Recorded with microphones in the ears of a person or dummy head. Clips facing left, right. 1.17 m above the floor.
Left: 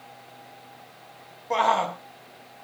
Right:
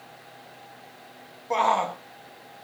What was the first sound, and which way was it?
A shout, 5° left (ahead or behind).